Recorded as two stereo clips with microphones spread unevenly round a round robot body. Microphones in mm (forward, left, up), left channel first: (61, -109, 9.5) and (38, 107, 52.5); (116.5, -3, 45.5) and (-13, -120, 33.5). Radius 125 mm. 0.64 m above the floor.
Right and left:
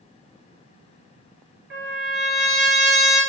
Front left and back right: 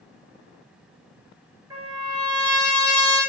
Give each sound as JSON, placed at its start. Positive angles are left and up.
{"t": 1.7, "sound": "a trumpet", "azimuth_deg": 145, "distance_m": 3.0}